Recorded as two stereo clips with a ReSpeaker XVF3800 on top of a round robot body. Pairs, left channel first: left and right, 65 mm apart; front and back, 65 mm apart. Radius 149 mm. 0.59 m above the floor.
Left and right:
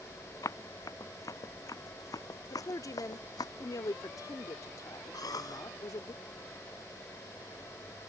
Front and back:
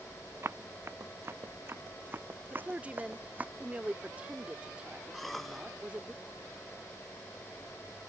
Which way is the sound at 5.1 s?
90° left.